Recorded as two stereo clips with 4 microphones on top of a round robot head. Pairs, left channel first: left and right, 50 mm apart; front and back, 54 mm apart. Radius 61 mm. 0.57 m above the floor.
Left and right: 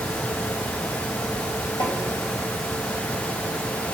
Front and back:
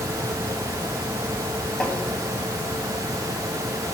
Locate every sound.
1.8 s tapping: 70° left, 3.5 m